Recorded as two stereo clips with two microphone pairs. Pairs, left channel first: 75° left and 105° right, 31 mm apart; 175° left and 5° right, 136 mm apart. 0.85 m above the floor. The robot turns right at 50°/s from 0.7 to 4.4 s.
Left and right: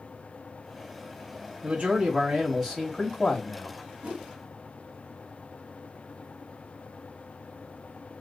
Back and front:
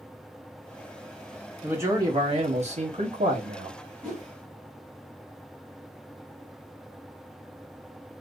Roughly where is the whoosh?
Right.